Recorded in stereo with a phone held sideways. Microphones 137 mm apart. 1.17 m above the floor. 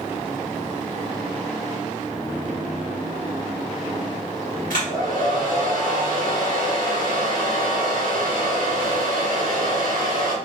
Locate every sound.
4.7 s a hair dryer: 80° left, 1.6 m